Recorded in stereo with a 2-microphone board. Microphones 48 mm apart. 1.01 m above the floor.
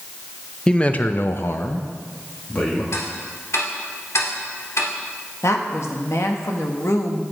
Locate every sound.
0.7 s a man speaking: 15° left (ahead or behind), 0.8 m; by 2.8 s 35° left (ahead or behind), 2 m
2.9 s ticking: 70° left (ahead or behind), 1.9 m
5.4 s a woman speaking: 70° left (ahead or behind), 1.5 m